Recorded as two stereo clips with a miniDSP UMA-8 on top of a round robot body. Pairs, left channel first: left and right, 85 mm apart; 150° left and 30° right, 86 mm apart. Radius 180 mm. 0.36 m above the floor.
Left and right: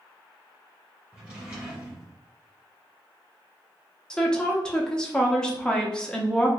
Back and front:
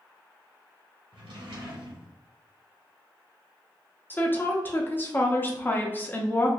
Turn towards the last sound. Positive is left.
turn(degrees=155)